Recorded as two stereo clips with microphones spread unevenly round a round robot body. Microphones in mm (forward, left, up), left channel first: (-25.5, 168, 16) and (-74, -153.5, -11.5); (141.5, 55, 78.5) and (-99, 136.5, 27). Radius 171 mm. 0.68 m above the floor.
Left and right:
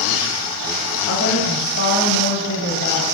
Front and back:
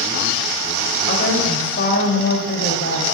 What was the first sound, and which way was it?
A woman speaking, 25° left.